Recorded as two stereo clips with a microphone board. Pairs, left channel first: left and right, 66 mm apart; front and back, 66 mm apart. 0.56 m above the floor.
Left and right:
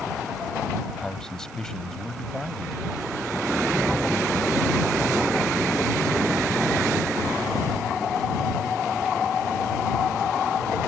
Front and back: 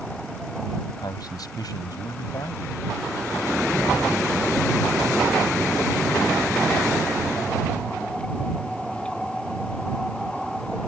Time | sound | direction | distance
1.0 | a man speaking | 10° left | ?